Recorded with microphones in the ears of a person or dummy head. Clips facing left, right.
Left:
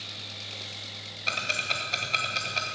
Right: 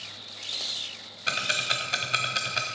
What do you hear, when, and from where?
1.3 s ticking: 5° right (ahead or behind), 0.9 m